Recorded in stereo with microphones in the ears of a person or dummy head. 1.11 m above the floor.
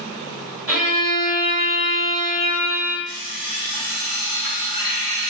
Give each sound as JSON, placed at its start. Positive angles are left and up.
{"t": 0.7, "sound": "a violin", "side_deg": -10, "distance_m": 1.6}
{"t": 3.0, "sound": "an alarm clock", "side_deg": -10, "distance_m": 1.4}